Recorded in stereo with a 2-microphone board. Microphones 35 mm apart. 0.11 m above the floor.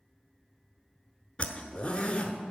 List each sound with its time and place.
1.4 s a zipper: 30° left (ahead or behind), 0.9 m